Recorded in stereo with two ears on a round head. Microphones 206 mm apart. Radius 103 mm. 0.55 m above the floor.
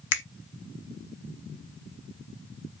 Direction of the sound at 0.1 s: 55° left (ahead or behind).